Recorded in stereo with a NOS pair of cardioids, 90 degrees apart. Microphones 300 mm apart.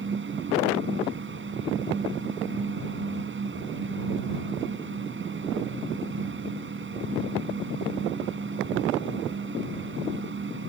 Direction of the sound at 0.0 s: 35° right.